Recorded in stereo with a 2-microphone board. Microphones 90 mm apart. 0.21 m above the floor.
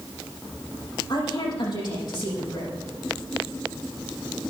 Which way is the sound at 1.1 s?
60° left (ahead or behind).